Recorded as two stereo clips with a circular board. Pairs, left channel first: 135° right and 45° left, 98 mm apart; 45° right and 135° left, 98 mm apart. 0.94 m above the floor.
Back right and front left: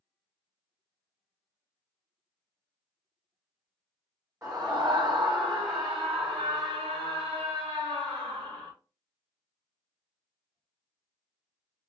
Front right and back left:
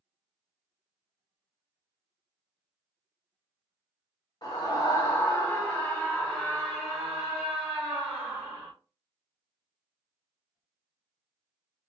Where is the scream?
10° right, 0.9 m; by 8.7 s 75° left, 2 m.